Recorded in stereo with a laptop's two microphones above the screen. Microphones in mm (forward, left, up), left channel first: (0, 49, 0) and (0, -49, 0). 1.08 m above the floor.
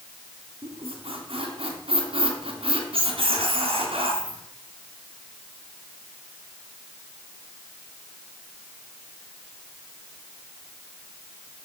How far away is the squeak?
About 3.5 m.